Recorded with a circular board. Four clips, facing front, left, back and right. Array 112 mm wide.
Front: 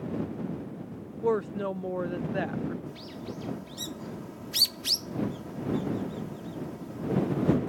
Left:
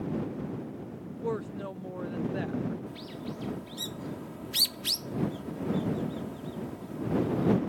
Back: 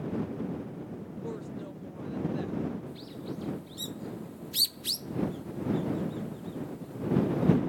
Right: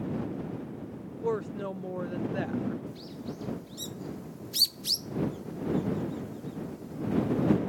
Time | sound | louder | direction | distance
1.2 | a woman speaking | right 3 dB, front 14 dB | 5° right | ?
2.9 | a bird | even, even | 50° left | ?